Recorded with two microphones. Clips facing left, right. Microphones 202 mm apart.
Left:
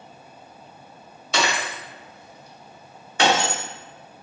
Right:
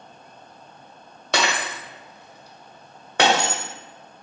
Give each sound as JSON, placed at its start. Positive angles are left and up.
{"t": 1.3, "sound": "breaking glass", "side_deg": -70, "distance_m": 1.0}